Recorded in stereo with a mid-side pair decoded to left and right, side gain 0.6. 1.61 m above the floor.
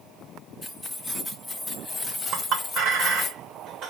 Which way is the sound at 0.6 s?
15° left.